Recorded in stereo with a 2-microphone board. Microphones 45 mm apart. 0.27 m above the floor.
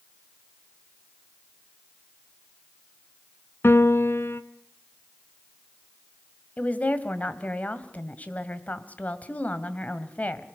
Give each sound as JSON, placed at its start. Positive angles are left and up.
{"t": 3.6, "sound": "a piano", "side_deg": 60, "distance_m": 1.1}
{"t": 6.6, "sound": "a woman speaking", "side_deg": 35, "distance_m": 1.8}